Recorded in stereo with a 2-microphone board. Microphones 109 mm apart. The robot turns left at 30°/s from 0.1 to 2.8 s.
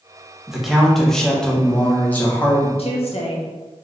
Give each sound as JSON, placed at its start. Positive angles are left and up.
{"t": 0.5, "sound": "a man speaking", "side_deg": -5, "distance_m": 1.0}
{"t": 2.8, "sound": "a woman speaking", "side_deg": 65, "distance_m": 1.0}